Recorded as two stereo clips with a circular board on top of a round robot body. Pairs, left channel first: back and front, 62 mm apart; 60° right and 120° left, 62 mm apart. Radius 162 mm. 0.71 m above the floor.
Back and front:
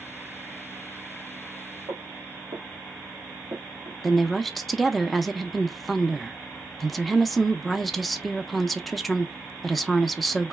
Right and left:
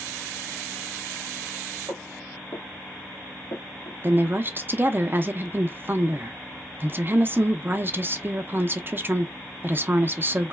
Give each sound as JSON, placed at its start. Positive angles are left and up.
{"t": 1.9, "sound": "footsteps", "azimuth_deg": 30, "distance_m": 1.2}
{"t": 4.0, "sound": "a woman speaking", "azimuth_deg": 90, "distance_m": 0.6}